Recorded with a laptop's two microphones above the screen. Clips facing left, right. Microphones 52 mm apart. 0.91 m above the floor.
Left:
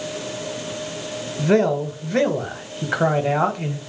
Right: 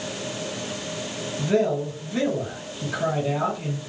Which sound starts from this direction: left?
A man speaking, at 1.4 s.